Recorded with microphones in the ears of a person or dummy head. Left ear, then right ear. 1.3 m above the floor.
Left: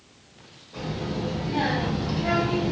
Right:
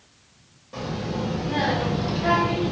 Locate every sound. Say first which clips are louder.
0.7 s a child speaking: right 2 dB; 55° right (ahead or behind), 1.4 m; by 2.7 s 10° right (ahead or behind), 0.6 m